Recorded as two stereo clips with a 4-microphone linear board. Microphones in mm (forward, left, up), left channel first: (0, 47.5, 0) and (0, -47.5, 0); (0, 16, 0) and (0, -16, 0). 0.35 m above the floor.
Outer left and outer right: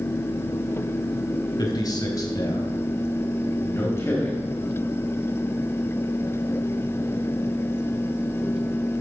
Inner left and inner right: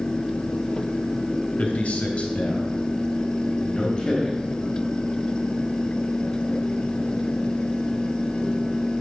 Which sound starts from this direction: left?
A man speaking, at 1.6 s.